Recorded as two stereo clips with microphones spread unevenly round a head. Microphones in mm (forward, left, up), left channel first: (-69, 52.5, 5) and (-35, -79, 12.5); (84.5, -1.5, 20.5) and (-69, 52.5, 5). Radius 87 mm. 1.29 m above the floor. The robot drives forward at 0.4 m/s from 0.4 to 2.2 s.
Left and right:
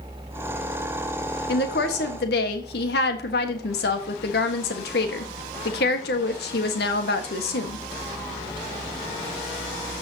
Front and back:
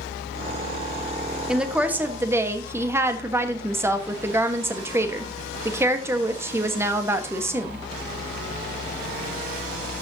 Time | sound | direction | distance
1.5 | a woman speaking | 75° left | 1.5 m